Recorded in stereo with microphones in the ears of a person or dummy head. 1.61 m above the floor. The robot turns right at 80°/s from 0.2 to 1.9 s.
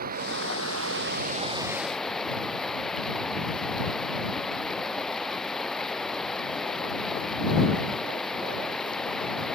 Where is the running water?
130° right; by 9.6 s 5° left.